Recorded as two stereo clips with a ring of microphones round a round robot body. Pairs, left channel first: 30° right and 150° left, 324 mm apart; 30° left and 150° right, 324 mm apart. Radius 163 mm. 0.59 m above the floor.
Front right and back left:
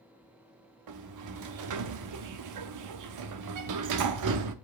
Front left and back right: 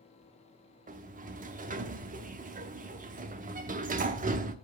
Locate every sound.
0.9 s a sliding door: 150° left, 0.8 m